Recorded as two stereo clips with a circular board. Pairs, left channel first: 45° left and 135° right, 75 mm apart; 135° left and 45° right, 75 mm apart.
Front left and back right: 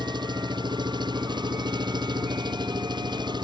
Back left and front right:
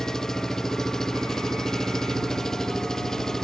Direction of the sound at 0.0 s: 140° right.